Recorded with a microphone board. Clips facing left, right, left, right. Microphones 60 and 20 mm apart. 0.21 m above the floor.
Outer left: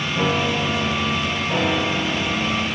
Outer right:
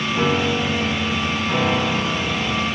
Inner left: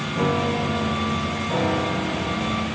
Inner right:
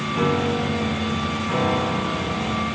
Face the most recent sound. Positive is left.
turn(degrees=-60)  # may be behind; listen again after turning